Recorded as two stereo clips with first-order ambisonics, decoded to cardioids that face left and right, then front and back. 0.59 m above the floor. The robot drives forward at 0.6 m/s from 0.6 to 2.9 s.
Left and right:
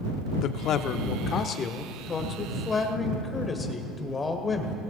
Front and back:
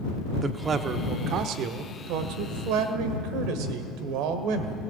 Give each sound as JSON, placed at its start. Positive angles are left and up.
{"t": 0.4, "sound": "a man speaking", "azimuth_deg": 120, "distance_m": 0.8}